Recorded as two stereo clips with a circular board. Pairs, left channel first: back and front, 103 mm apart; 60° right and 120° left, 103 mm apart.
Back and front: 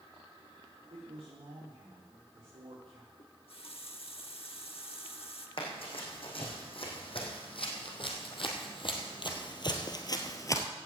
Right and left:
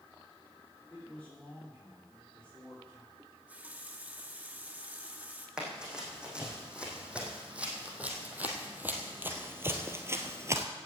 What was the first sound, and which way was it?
A man speaking, 20° left.